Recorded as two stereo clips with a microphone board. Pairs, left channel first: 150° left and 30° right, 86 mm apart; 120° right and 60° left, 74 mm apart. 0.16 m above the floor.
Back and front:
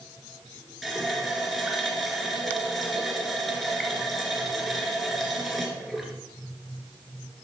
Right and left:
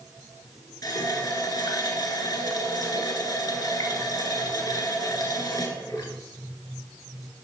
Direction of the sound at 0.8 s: 120° right.